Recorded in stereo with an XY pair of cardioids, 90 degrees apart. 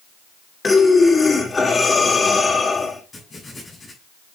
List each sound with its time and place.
0.6 s breathing: 30° left, 2.5 m
3.1 s writing: 25° left, 7 m